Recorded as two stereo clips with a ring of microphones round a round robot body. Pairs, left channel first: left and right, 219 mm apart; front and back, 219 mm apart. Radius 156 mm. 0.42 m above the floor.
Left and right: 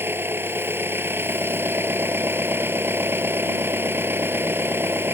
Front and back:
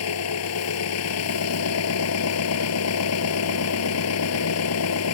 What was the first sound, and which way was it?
An engine running, 10° right.